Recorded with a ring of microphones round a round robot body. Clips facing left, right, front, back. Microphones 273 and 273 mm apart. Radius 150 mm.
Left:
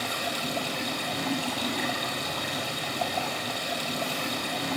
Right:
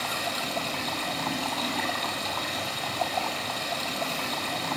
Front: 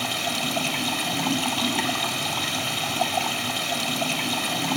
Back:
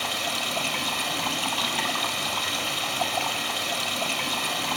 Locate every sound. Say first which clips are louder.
0.0 s running water: left 1 dB, front 4 dB; 10° left, 1.1 m